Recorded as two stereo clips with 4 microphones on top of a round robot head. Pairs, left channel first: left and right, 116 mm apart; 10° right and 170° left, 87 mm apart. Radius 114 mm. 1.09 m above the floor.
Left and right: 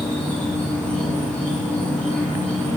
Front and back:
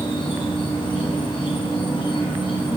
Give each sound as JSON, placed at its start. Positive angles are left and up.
{"t": 0.0, "sound": "an insect", "azimuth_deg": 15, "distance_m": 1.8}